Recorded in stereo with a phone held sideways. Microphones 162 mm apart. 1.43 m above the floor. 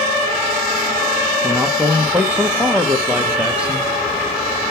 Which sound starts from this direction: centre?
A man speaking, at 1.4 s.